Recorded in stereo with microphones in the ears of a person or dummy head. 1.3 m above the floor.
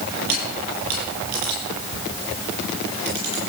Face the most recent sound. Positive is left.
turn(degrees=-55)  # may be behind; listen again after turning